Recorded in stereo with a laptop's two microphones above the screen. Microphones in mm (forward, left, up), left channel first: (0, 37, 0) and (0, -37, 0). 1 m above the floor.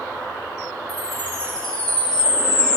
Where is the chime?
20° left (ahead or behind), 6 m.